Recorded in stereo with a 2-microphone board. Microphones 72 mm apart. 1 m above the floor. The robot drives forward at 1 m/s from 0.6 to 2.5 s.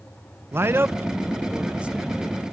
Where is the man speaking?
35° right (ahead or behind), 0.5 m; by 2.5 s 10° right (ahead or behind), 1.9 m.